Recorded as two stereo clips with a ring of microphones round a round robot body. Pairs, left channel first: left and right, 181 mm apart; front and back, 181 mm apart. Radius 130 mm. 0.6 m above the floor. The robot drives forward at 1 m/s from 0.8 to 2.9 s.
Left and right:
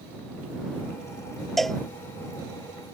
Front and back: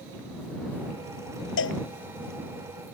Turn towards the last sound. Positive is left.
turn(degrees=0)